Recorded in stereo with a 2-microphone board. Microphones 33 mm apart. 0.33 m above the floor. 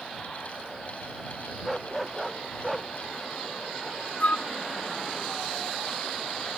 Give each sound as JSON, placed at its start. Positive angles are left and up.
{"t": 1.6, "sound": "a dog barking", "side_deg": 0}
{"t": 4.2, "sound": "a flute", "side_deg": 55}